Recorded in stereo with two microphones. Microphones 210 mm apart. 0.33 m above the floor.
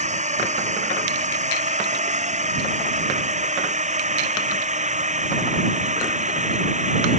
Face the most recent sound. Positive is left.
turn(degrees=-35)  # may be behind; listen again after turning